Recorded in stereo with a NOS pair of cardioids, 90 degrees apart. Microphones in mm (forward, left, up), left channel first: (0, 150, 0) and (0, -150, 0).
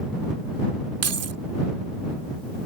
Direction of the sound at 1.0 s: 55° right.